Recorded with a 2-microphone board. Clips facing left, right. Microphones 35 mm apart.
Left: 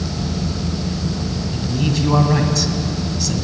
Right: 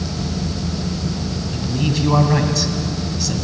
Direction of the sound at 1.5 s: 5° right (ahead or behind).